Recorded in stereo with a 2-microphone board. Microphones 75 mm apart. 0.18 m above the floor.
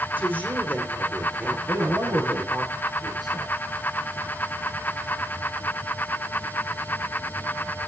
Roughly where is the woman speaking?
Right.